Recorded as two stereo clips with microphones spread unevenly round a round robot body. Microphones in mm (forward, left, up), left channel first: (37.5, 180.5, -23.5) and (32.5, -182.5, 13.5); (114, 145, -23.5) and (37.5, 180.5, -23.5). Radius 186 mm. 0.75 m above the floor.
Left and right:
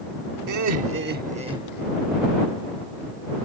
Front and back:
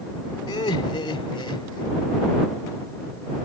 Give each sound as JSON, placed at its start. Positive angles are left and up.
{"t": 0.5, "sound": "laughter", "azimuth_deg": -50}